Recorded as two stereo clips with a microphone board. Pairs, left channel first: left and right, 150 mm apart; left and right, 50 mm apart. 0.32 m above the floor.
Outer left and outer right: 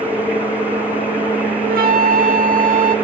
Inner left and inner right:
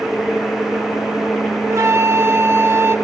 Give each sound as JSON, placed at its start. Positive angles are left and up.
{"t": 1.6, "sound": "a flute", "side_deg": -75, "distance_m": 0.6}